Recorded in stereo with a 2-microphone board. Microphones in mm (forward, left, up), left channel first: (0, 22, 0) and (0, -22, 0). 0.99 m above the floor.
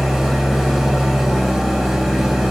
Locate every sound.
0.0 s an engine running: 5° right (ahead or behind), 5.5 m